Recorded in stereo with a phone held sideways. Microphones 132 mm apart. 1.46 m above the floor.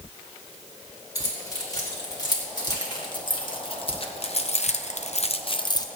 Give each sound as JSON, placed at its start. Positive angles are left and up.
{"t": 1.1, "sound": "keys jangling", "side_deg": 30, "distance_m": 3.0}